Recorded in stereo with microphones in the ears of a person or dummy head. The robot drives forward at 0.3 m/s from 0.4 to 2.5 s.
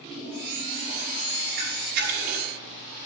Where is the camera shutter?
55° right (ahead or behind), 5.5 m.